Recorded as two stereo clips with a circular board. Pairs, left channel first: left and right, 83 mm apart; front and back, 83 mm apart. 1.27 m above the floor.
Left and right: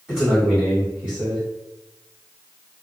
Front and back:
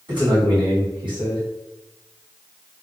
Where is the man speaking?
170° right, 1.6 m.